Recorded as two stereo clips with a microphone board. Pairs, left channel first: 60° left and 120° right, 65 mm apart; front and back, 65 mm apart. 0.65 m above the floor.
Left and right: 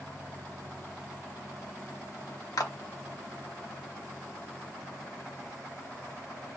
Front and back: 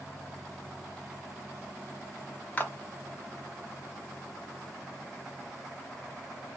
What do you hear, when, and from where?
2.6 s a clap: 60° left, 0.8 m